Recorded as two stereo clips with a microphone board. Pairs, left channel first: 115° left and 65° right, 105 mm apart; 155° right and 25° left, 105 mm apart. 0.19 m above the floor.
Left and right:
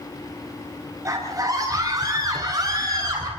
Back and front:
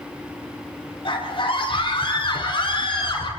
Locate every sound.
1.1 s a scream: 125° right, 6.5 m; by 3.3 s 120° right, 8.5 m